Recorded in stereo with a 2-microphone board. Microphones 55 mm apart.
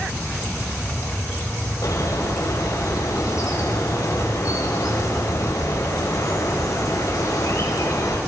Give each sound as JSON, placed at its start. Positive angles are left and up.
{"t": 1.8, "sound": "a bird", "side_deg": 65, "distance_m": 4.0}